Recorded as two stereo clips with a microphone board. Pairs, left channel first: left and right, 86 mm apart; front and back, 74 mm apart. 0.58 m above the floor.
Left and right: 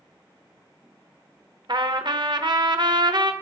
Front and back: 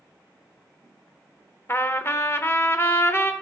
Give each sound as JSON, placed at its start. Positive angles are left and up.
{"t": 1.7, "sound": "a trumpet", "azimuth_deg": -60, "distance_m": 0.6}